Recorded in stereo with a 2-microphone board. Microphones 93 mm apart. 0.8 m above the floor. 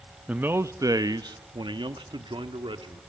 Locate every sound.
0.3 s a man speaking: 15° right (ahead or behind), 0.5 m; by 3.0 s 70° right (ahead or behind), 1.9 m